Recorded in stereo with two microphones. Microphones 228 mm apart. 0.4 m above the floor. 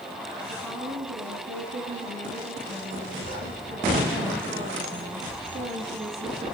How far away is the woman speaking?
About 6.5 m.